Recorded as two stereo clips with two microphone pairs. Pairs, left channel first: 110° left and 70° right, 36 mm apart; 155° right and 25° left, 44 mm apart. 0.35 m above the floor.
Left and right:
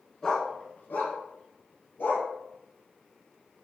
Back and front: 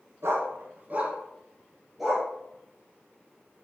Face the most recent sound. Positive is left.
turn(degrees=110)